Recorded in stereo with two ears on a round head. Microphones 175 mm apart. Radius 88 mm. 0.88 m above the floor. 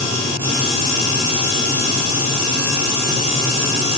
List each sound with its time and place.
Only background noise.